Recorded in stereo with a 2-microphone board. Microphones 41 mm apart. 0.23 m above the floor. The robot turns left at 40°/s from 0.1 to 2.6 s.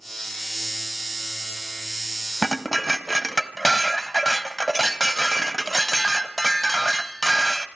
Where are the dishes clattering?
5° left (ahead or behind), 0.9 m; by 7.7 s 10° left (ahead or behind), 0.9 m.